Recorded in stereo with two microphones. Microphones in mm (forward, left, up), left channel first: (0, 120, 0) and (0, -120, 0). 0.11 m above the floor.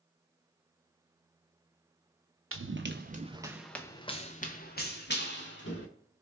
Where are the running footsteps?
60° right (ahead or behind), 0.7 m; by 5.9 s 55° left (ahead or behind), 1.5 m.